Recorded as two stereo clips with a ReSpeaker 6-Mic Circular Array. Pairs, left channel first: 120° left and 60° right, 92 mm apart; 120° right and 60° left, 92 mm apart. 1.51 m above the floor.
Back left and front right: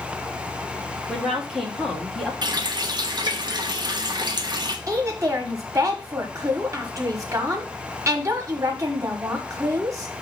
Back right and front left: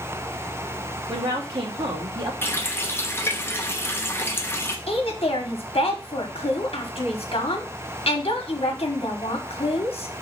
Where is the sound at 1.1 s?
30° left, 2.5 m.